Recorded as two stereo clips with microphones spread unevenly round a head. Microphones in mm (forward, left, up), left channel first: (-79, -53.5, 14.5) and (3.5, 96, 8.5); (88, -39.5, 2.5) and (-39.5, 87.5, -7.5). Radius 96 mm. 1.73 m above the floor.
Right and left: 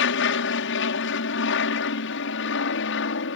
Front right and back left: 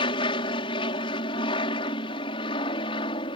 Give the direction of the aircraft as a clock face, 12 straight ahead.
4 o'clock.